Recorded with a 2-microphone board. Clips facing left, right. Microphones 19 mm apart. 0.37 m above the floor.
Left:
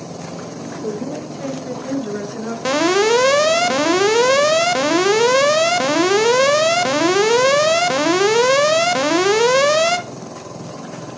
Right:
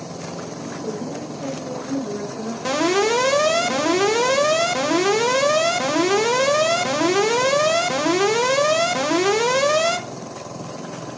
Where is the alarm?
25° left (ahead or behind), 1.2 m.